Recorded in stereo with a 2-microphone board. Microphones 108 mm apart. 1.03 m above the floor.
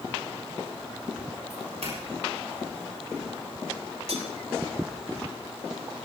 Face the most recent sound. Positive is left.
turn(degrees=-70)  # may be behind; listen again after turning